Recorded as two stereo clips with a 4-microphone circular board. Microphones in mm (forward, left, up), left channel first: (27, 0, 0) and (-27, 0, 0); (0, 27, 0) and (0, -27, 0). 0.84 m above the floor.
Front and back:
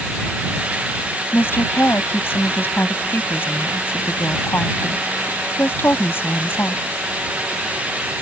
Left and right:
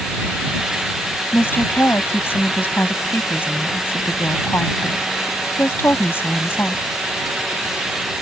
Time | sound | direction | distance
1.3 | a woman speaking | 45° left | ?